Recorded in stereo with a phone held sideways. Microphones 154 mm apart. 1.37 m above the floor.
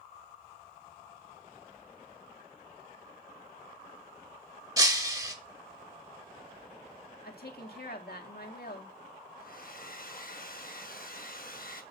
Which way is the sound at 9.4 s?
60° left (ahead or behind).